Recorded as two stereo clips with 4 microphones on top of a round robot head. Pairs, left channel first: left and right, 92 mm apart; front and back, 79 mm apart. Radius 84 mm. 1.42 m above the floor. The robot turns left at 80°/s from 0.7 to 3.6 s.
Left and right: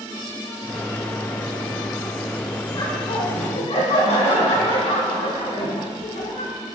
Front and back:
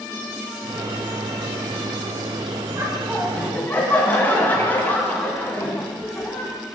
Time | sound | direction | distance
2.7 | laughter | 135° left | 2.5 m